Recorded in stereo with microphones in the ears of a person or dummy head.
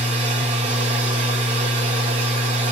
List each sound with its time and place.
0.0 s a machine running: 35° right (ahead or behind), 1.5 m